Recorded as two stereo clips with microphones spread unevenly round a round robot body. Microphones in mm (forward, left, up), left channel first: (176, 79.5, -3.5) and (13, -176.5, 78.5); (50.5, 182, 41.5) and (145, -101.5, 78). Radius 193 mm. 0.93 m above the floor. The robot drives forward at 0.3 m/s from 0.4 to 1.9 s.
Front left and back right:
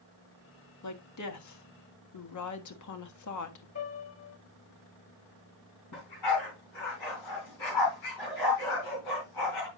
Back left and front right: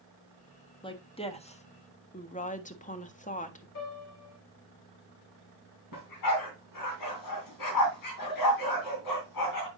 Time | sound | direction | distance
0.8 | a woman speaking | 35° left | 1.5 m
3.8 | a piano | 100° left | 4 m
5.9 | a dog barking | 95° left | 3 m